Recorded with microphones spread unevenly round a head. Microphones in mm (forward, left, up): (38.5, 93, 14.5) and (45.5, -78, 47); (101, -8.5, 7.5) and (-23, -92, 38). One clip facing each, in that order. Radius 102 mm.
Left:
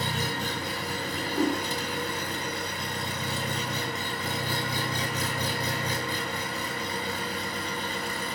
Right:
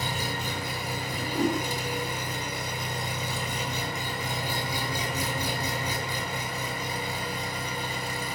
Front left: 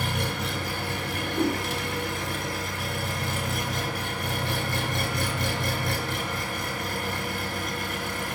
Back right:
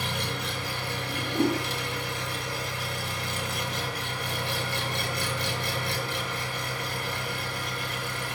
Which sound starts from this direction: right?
A whoosh, at 1.1 s.